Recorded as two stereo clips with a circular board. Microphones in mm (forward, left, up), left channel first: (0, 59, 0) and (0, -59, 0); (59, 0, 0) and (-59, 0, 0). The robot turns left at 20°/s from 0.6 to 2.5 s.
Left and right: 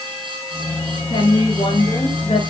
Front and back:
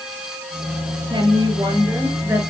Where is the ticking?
No ticking in this recording.